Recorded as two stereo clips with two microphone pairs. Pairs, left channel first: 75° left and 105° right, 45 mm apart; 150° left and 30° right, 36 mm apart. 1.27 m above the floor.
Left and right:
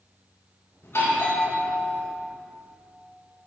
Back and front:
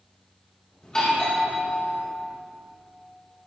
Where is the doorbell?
80° left, 2.5 m.